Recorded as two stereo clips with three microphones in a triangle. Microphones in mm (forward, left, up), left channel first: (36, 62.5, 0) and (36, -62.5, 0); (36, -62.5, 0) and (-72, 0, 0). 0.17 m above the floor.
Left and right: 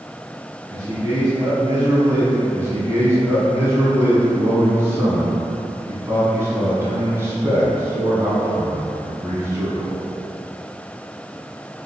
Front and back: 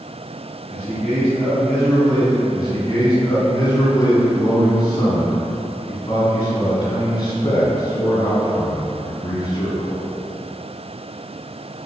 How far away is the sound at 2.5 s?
About 1.4 m.